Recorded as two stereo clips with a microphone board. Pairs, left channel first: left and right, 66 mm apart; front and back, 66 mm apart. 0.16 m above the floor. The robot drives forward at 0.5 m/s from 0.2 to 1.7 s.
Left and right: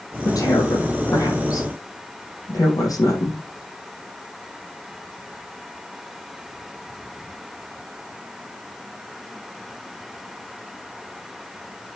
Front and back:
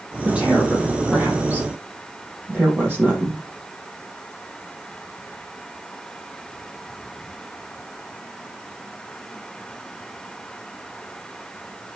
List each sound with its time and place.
0.2 s a woman speaking: 110° left, 4.5 m; by 3.4 s 120° left, 5 m